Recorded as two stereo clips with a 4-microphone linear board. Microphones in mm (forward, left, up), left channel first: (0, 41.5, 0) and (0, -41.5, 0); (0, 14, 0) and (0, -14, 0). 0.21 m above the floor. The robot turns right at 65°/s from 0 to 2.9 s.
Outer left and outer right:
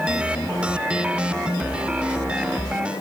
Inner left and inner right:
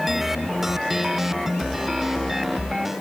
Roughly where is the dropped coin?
No dropped coin in this recording.